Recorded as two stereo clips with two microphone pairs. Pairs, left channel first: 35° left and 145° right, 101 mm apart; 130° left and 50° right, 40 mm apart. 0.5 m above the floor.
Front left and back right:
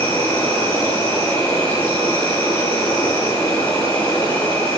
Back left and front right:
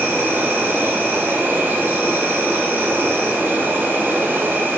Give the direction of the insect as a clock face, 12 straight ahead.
1 o'clock.